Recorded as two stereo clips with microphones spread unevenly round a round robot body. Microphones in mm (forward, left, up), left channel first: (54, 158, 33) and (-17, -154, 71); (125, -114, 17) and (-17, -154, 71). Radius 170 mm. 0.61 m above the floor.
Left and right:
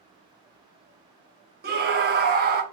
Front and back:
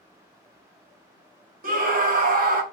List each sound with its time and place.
1.6 s a scream: 155° right, 0.6 m